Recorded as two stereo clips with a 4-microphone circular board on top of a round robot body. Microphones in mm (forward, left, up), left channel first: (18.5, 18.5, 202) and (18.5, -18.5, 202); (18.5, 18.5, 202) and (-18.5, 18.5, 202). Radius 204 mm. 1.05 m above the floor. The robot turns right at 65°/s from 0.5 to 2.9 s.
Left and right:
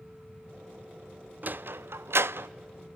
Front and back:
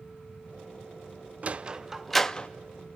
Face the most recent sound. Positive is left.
turn(degrees=-35)